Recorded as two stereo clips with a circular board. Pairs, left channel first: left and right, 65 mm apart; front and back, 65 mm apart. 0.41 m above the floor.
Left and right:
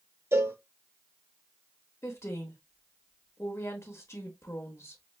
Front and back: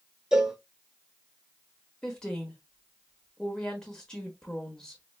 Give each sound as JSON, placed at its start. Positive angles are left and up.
{"t": 0.3, "sound": "a cowbell", "azimuth_deg": -105, "distance_m": 0.5}
{"t": 2.0, "sound": "a woman speaking", "azimuth_deg": 75, "distance_m": 1.0}